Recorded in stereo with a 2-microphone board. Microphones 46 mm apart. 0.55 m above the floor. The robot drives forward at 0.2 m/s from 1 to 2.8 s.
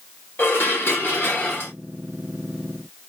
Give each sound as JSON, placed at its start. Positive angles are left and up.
{"t": 0.4, "sound": "dishes clattering", "side_deg": 55, "distance_m": 1.2}